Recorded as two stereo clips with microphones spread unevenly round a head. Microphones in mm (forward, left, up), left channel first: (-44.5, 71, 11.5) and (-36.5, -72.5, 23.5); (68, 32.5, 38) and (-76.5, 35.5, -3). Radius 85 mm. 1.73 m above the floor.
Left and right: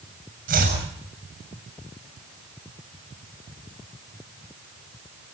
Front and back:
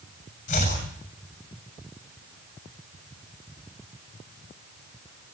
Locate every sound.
0.5 s chopping: 45° right, 7 m